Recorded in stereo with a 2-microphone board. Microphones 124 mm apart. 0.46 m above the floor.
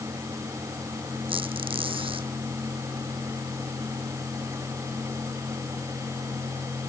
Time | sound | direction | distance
1.3 | a squeak | 45° right (ahead or behind) | ?